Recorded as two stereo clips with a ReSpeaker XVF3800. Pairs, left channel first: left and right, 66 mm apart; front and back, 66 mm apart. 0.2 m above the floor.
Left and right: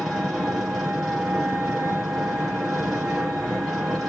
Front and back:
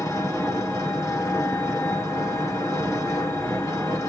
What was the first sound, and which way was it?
An engine running, 5° right.